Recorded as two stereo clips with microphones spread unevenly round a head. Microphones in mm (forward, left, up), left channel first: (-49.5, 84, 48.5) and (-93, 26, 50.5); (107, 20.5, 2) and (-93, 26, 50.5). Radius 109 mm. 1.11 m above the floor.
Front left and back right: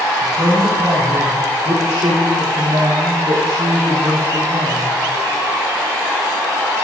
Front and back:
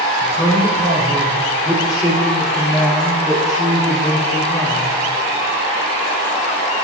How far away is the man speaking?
About 2.5 m.